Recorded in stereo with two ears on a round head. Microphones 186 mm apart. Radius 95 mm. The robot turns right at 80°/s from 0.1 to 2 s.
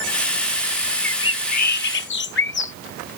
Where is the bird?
10° left; by 2.7 s 85° left.